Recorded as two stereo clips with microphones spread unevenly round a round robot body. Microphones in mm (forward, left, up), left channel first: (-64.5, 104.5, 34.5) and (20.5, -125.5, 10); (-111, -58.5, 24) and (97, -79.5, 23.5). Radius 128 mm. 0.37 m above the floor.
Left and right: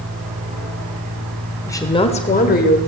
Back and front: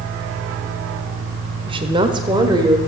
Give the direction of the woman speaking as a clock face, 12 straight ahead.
11 o'clock.